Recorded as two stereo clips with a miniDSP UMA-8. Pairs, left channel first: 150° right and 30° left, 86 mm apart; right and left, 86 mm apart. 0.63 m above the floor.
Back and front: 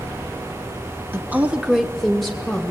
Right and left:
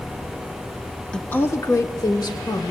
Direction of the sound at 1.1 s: 15° right.